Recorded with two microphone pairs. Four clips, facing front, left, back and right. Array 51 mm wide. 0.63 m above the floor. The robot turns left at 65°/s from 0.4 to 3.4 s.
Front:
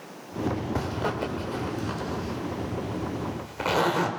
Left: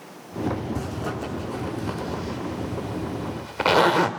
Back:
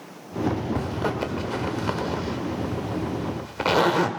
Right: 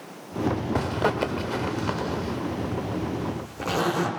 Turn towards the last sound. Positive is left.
turn(degrees=105)